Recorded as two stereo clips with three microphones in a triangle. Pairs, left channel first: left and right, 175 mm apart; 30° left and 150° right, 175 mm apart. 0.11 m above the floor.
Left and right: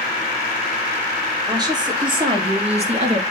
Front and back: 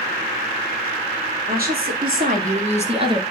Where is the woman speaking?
155° right, 3.5 m; by 3.2 s 100° right, 2 m.